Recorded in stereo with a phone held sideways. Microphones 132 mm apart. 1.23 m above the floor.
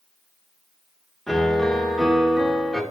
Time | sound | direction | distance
1.3 | a piano | centre (ahead or behind) | 1.0 m